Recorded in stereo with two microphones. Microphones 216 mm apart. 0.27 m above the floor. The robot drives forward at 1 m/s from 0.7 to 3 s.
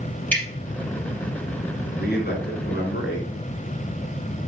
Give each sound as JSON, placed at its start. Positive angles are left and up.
{"t": 0.3, "sound": "dripping", "side_deg": 5, "distance_m": 4.5}
{"t": 2.0, "sound": "a man speaking", "side_deg": 45, "distance_m": 3.5}